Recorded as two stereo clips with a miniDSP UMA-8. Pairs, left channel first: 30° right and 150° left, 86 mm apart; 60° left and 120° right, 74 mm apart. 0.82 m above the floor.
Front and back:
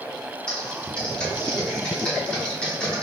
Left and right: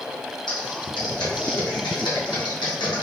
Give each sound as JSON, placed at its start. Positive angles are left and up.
{"t": 0.5, "sound": "typing on a keyboard", "azimuth_deg": 50, "distance_m": 0.9}